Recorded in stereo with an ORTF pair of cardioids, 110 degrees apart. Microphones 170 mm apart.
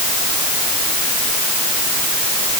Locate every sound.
Only background noise.